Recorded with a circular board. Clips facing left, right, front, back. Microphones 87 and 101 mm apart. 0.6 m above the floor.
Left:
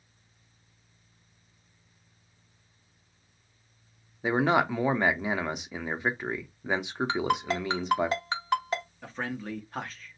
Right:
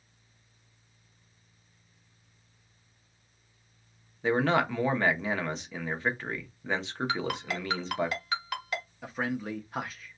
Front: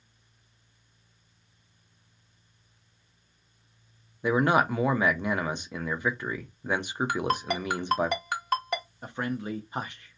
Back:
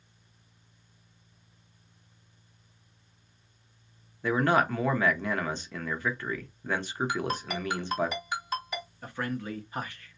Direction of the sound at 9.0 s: 20° right.